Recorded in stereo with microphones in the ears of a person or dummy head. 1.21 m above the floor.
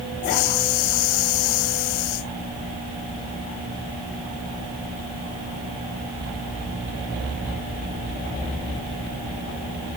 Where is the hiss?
75° left (ahead or behind).